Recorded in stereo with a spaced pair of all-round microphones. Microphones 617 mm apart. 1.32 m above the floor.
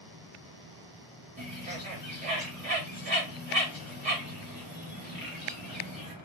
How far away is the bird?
About 2 m.